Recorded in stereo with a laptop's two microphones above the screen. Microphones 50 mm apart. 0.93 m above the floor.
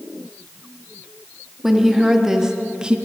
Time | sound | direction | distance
1.6 | a woman speaking | 5° right (ahead or behind) | 1.7 m